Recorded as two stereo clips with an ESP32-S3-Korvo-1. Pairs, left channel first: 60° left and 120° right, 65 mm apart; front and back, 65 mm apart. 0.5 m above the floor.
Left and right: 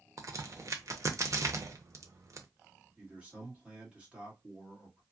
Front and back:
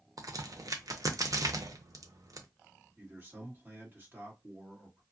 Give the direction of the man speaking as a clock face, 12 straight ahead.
6 o'clock.